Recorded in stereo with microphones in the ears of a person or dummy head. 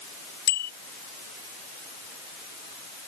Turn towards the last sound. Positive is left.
turn(degrees=60)  # may be behind; listen again after turning